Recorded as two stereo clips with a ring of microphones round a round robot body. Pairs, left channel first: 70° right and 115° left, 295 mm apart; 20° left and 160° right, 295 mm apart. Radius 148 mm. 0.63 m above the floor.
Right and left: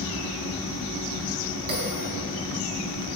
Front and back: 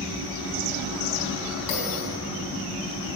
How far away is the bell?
About 3.5 m.